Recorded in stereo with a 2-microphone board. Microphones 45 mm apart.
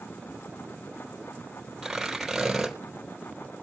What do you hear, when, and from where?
1.8 s tearing paper: 5° right (ahead or behind), 3 m